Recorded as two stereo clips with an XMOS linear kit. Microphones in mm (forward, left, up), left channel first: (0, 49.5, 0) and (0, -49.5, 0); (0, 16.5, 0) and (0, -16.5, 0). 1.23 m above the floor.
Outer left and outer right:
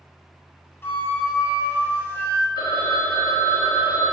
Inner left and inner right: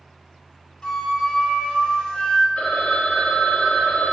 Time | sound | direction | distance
0.8 | a flute | 25° left (ahead or behind) | 1.1 m
2.6 | a phone ringing | 50° left (ahead or behind) | 1.1 m